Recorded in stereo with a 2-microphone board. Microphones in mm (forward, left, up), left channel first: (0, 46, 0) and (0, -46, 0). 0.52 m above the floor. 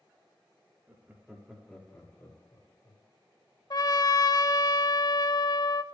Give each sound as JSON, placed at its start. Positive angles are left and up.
{"t": 0.9, "sound": "laughter", "side_deg": -25, "distance_m": 1.2}
{"t": 3.7, "sound": "a trumpet", "side_deg": 55, "distance_m": 0.6}